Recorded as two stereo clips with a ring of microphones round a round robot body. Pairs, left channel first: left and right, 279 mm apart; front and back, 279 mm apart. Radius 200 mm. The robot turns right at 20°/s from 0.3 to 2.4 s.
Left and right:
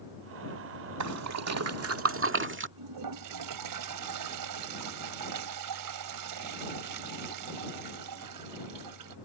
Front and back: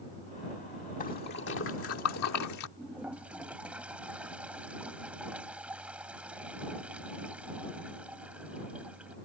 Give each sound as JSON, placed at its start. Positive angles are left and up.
{"t": 1.0, "sound": "a splash", "azimuth_deg": -70}
{"t": 2.8, "sound": "a toilet flushing", "azimuth_deg": -95}